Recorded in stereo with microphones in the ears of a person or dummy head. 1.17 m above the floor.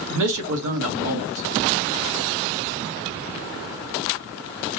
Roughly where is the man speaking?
Right.